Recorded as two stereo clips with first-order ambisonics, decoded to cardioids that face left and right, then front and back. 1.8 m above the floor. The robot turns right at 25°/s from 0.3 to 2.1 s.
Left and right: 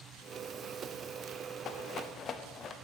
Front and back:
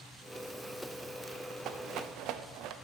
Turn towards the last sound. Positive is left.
turn(degrees=150)